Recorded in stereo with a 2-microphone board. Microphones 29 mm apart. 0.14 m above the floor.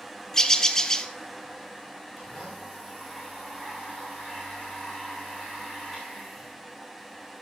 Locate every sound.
0.3 s a bird: 20° left (ahead or behind), 0.7 m
2.2 s a blender: centre (ahead or behind), 5.5 m